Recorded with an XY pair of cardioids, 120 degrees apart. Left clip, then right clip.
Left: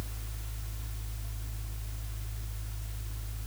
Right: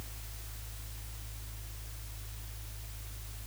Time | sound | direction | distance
0.0 | a fan | 35° left | ?